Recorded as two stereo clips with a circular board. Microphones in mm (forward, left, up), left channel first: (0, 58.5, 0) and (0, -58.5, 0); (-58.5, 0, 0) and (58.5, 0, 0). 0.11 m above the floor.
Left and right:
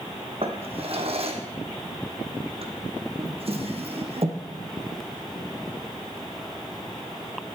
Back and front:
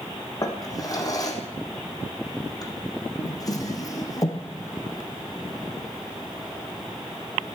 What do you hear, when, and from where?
0.4 s a drawer: 125° right, 2 m